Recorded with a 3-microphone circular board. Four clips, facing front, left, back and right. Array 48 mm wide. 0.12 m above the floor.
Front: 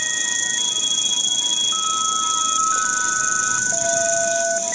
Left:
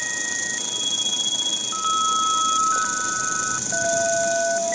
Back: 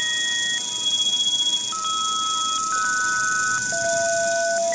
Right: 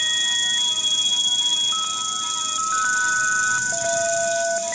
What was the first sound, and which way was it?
An insect, 70° left.